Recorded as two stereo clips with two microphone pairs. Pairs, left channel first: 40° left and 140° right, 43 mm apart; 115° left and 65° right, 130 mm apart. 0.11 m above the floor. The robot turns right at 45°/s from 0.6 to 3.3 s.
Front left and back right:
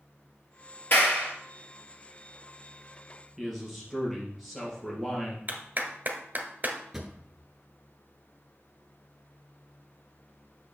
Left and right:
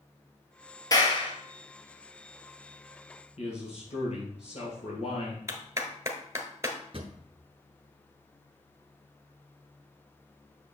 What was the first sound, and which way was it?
A clap, 60° left.